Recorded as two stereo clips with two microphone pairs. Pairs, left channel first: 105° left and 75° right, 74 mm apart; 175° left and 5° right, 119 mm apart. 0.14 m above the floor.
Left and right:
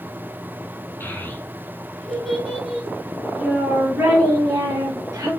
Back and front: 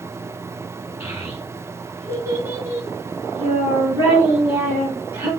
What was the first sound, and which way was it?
A child speaking, 65° left.